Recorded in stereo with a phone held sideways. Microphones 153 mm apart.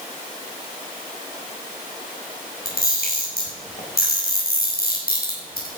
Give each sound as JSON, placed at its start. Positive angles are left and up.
{"t": 2.6, "sound": "a camera shutter", "side_deg": 80, "distance_m": 6.5}